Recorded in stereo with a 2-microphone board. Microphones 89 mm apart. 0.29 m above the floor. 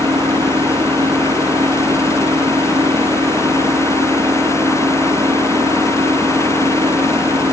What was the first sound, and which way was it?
An engine running, 50° right (ahead or behind).